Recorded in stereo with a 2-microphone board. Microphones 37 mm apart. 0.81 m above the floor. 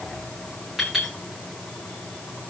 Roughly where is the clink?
Centre.